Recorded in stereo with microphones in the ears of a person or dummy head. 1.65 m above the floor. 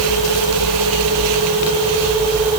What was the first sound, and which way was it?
Only background noise.